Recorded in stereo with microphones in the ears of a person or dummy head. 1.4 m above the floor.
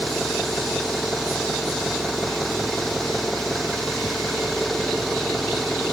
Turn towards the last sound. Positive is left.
turn(degrees=0)  # may be behind; listen again after turning